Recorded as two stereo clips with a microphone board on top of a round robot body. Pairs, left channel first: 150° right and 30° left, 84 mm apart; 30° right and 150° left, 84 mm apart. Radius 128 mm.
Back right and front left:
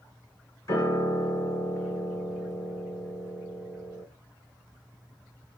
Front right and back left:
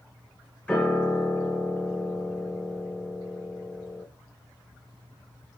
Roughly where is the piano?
Right.